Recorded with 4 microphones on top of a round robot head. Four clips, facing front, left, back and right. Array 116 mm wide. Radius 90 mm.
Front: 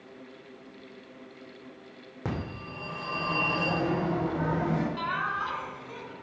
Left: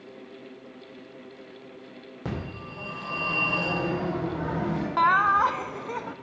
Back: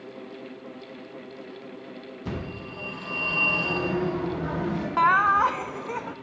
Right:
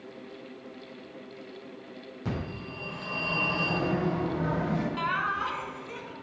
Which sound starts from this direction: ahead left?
A phone ringing, at 2.2 s.